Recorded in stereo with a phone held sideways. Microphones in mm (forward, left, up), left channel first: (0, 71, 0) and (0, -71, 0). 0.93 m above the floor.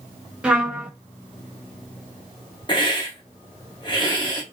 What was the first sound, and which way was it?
A trumpet, 5° right (ahead or behind).